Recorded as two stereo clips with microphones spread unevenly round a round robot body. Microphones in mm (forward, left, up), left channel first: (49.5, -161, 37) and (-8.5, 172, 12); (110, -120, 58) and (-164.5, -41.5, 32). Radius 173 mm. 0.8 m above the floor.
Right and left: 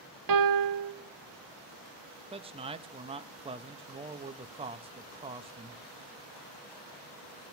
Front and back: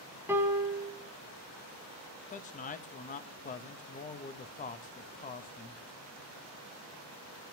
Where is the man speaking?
40° left, 0.6 m.